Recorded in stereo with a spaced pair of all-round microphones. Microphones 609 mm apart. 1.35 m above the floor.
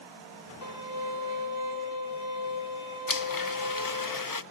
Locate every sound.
0.6 s a violin: 70° left (ahead or behind), 6 m
3.1 s a blender: 35° left (ahead or behind), 0.6 m